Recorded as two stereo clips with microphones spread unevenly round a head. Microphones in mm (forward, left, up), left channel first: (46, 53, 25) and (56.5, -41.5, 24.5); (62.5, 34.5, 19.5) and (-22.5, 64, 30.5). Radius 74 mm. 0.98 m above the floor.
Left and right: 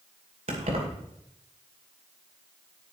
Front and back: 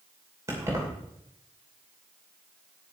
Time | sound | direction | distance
0.5 | keys jangling | 130° right | 2.5 m